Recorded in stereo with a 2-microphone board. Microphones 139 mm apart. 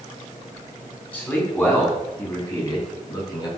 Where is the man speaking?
10° left (ahead or behind), 4 m; by 3.5 s 30° left (ahead or behind), 5.5 m.